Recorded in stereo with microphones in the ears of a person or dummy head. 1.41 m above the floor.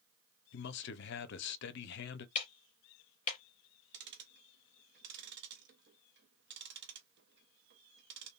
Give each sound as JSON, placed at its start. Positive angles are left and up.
{"t": 0.5, "sound": "a man speaking", "side_deg": 70, "distance_m": 0.6}
{"t": 2.4, "sound": "ticking", "side_deg": 40, "distance_m": 0.5}
{"t": 3.9, "sound": "ticking", "side_deg": -55, "distance_m": 0.6}